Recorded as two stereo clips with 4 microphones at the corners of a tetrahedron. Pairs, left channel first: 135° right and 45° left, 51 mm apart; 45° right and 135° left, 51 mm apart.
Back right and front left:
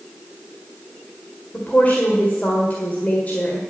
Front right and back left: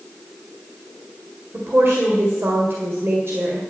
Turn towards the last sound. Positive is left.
turn(degrees=170)